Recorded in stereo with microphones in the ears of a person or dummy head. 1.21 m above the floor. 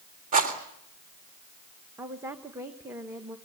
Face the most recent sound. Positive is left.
turn(degrees=-15)  # may be behind; listen again after turning